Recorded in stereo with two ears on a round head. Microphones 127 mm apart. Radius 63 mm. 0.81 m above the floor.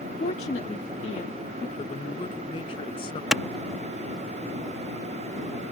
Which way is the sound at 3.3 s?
5° right (ahead or behind).